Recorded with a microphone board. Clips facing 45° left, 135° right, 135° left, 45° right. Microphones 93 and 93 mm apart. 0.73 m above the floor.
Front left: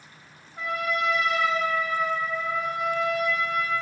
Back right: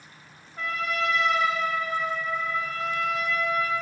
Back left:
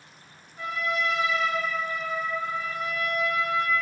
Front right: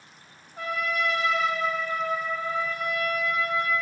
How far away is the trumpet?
About 0.6 m.